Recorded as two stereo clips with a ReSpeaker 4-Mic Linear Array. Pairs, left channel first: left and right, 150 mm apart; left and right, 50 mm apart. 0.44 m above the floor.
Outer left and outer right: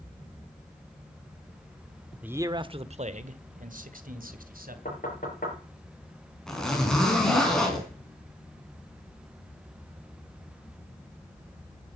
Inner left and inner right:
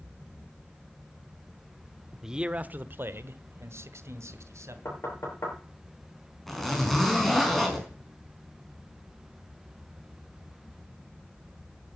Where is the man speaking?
10° right (ahead or behind), 0.7 m; by 4.8 s 75° right (ahead or behind), 2.5 m.